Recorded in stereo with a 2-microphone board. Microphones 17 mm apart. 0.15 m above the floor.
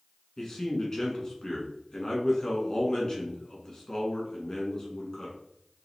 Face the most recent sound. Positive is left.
turn(degrees=35)  # may be behind; listen again after turning